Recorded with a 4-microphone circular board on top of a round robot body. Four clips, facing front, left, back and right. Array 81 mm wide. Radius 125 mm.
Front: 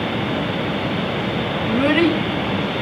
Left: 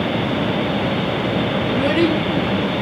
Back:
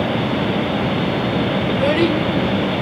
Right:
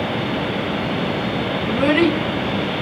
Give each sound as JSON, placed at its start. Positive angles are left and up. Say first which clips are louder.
{"t": 1.6, "sound": "a child speaking", "louder": "right 2 dB, front 2 dB", "azimuth_deg": -40, "distance_m": 4.0}